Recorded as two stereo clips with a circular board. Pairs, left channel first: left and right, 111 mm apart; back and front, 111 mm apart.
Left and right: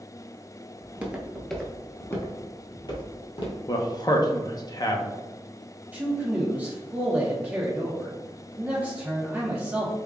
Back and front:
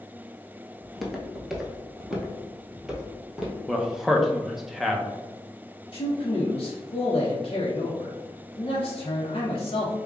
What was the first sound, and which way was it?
Footsteps, 95° right.